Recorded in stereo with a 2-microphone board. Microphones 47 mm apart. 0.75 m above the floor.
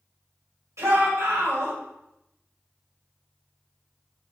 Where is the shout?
80° right, 4 m.